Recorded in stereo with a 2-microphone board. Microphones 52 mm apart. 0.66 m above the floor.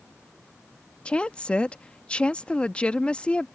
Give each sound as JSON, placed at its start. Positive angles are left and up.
{"t": 1.1, "sound": "a woman speaking", "side_deg": 20}